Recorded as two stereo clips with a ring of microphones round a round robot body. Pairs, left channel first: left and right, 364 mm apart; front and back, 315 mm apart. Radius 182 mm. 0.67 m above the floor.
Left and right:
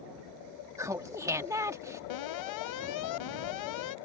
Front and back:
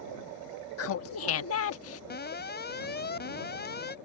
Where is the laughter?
10° right.